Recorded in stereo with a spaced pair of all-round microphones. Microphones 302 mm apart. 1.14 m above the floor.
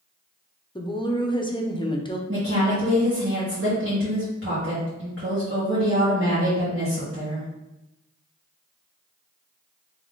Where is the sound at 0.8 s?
15° left (ahead or behind), 0.6 m.